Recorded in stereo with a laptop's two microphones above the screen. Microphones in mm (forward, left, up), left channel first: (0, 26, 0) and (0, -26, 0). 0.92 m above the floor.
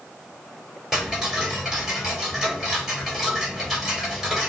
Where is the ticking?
5° right (ahead or behind), 3.5 m.